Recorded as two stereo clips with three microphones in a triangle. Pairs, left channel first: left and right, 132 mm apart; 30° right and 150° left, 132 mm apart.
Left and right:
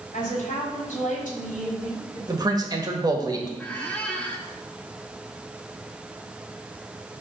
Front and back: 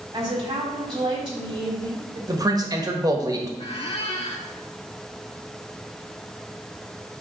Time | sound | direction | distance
0.1 | a woman speaking | 100° left | 3.5 m
2.3 | a man speaking | 150° right | 1.5 m
3.6 | a squeak | 10° left | 1.2 m